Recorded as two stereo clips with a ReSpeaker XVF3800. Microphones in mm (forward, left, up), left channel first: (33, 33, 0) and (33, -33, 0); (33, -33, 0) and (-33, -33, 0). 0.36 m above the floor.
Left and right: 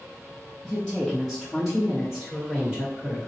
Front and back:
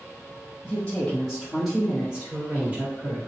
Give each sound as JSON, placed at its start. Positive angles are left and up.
{"t": 0.6, "sound": "a woman speaking", "azimuth_deg": 0, "distance_m": 1.3}